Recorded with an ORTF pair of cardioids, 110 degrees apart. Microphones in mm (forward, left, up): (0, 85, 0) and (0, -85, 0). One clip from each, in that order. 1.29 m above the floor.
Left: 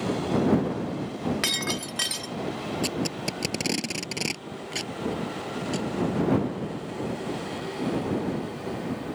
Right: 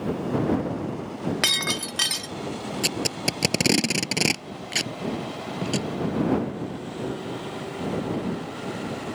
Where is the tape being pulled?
40° right.